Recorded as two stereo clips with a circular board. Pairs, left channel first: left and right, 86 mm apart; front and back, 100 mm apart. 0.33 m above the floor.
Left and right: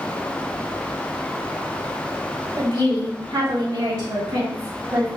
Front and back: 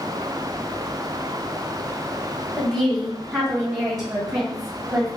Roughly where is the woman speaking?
Right.